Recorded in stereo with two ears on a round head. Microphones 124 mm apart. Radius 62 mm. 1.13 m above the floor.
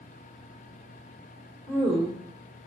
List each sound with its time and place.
1.7 s a woman speaking: 25° right (ahead or behind), 1.5 m